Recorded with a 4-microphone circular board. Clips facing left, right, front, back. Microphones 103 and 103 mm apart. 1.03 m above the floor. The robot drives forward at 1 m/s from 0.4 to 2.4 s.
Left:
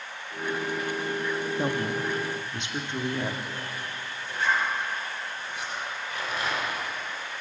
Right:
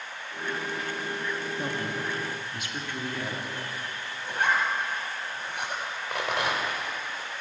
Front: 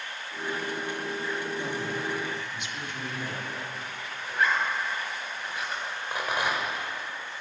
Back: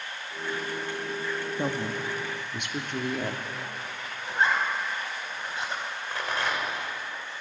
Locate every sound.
1.6 s a woman speaking: 145° left, 2 m; by 3.4 s 155° left, 3 m
4.3 s a zipper: 120° right, 4.5 m
6.1 s a rattle: 75° right, 4.5 m